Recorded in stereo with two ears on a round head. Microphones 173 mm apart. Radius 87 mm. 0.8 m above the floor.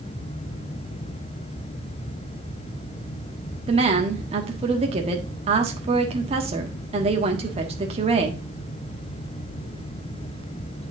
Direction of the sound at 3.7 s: 30° right (ahead or behind).